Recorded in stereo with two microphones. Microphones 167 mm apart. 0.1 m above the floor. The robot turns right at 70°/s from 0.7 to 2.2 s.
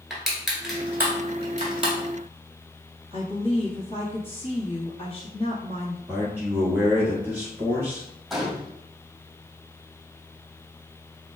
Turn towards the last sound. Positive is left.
turn(degrees=0)  # may be behind; listen again after turning